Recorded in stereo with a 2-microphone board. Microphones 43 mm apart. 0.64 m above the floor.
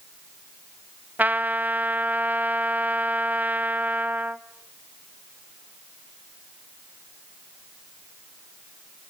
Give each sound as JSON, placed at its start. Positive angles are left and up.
{"t": 1.2, "sound": "a trumpet", "side_deg": -40, "distance_m": 0.6}